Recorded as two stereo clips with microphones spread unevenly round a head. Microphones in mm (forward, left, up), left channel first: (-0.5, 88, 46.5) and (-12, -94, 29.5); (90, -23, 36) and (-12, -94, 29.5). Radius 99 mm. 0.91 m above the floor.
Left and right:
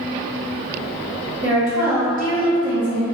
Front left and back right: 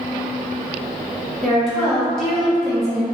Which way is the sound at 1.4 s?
55° right.